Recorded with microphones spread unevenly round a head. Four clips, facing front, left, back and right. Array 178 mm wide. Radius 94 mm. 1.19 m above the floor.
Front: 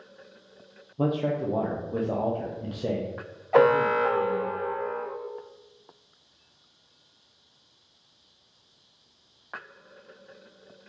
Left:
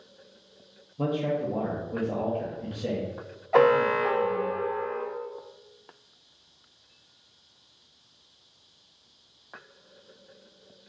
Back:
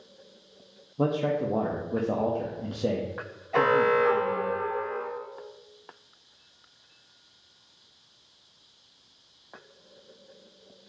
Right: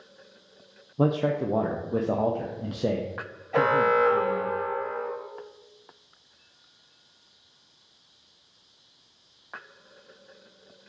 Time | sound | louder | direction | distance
1.0 | a man speaking | right 3 dB, even | 115° right | 0.5 m
3.5 | an alarm | left 1 dB, front 2 dB | 40° left | 1.1 m